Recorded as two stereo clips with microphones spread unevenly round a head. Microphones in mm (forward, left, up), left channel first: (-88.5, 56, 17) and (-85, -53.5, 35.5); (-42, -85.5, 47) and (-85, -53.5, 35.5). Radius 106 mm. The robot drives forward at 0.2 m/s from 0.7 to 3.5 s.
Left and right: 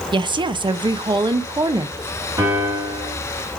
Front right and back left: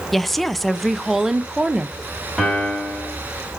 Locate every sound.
0.1 s a woman speaking: 135° right, 0.5 m; by 2.0 s 150° right, 0.7 m
2.4 s a piano: 115° right, 1.6 m; by 3.1 s 120° right, 1.7 m